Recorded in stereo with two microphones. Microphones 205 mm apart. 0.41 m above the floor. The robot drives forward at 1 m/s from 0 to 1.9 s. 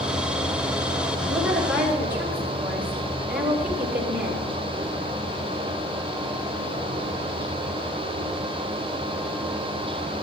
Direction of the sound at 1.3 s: 10° right (ahead or behind).